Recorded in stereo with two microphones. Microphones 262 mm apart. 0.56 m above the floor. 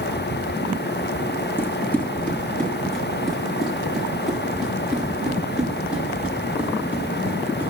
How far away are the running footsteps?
About 2 m.